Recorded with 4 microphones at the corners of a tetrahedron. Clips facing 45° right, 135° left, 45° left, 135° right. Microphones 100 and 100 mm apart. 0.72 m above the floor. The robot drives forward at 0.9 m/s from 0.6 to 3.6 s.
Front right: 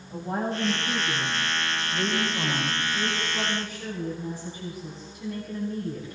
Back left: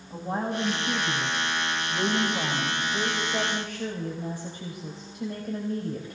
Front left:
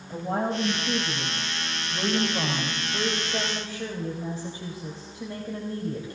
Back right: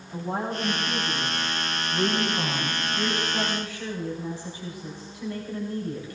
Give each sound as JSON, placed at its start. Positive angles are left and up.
{"t": 0.1, "sound": "a woman speaking", "azimuth_deg": 60, "distance_m": 3.5}